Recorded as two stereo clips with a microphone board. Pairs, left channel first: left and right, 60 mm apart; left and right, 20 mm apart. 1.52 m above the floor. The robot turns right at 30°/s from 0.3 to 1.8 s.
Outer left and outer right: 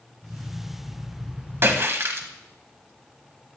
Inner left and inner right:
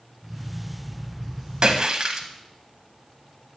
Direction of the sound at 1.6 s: 40° right (ahead or behind).